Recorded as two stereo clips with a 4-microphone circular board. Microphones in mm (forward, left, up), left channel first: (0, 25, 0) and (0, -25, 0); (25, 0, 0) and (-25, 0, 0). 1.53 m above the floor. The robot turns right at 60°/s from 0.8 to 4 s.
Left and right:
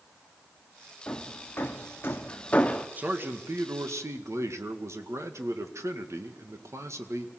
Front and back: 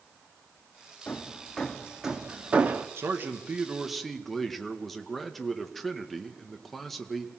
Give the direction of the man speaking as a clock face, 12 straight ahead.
5 o'clock.